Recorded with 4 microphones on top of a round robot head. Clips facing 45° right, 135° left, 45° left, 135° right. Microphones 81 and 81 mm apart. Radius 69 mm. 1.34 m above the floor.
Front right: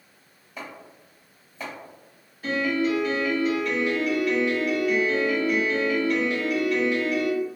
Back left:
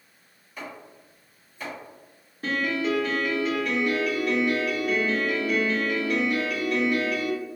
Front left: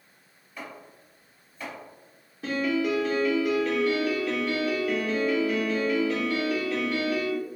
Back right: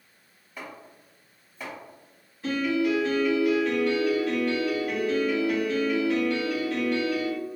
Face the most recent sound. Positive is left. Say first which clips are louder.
# front right 2 dB, back right 1 dB
turn(degrees=80)